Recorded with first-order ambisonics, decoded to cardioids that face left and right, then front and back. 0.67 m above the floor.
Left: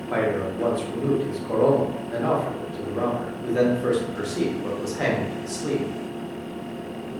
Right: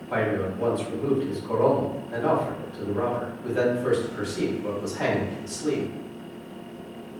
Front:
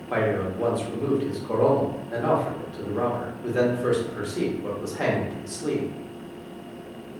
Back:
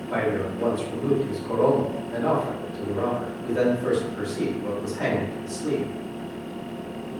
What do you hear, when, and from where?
0.1 s a man speaking: 40° left, 0.6 m